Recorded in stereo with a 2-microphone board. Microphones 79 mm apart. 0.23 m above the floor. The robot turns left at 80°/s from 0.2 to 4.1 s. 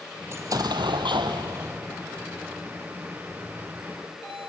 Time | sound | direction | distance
0.3 | an explosion | 35° right | 1.1 m